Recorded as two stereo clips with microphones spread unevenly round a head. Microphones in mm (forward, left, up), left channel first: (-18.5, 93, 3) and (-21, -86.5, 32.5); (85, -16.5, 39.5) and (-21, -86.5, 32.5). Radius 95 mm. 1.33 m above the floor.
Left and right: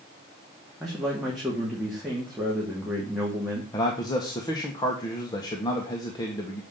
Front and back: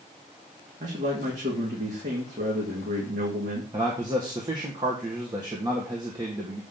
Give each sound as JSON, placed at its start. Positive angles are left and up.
{"t": 0.8, "sound": "a man speaking", "azimuth_deg": 180, "distance_m": 3.0}
{"t": 3.7, "sound": "a man speaking", "azimuth_deg": 155, "distance_m": 1.6}